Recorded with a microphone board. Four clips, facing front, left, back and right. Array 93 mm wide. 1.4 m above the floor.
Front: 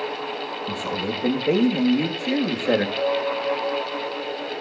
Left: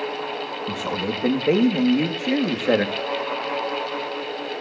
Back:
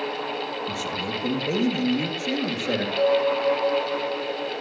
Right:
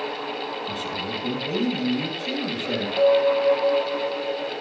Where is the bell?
110° right, 7 m.